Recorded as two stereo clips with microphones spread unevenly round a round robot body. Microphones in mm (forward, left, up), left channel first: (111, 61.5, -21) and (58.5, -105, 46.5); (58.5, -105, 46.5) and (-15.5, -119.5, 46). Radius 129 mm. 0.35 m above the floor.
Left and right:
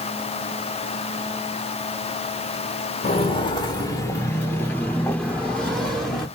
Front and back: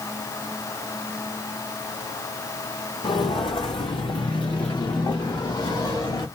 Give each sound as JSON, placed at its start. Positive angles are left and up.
{"t": 3.0, "sound": "footsteps", "azimuth_deg": 10, "distance_m": 1.2}